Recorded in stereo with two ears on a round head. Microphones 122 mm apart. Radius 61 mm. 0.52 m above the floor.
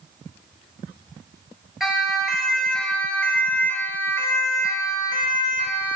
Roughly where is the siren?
Centre.